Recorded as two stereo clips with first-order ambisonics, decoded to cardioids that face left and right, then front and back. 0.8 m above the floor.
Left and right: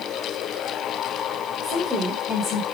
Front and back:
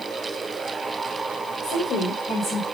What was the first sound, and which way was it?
A woman speaking, 25° right.